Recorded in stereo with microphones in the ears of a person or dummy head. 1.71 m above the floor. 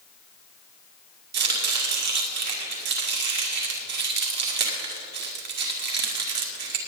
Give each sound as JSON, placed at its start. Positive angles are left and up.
{"t": 1.3, "sound": "chopping", "side_deg": -55, "distance_m": 2.0}